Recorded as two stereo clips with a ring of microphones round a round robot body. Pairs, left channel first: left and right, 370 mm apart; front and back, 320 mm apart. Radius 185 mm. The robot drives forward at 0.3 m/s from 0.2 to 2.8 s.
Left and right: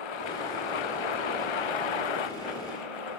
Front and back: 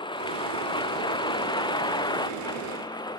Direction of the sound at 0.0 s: 75° left.